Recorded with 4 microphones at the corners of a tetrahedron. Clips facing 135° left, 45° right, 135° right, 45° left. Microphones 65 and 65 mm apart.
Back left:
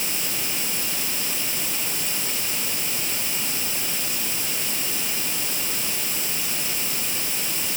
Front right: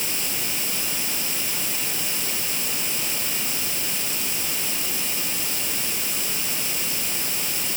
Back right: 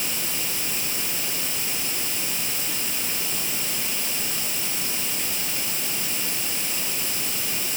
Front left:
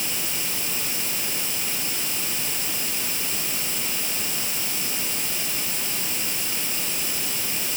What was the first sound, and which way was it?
Only background noise.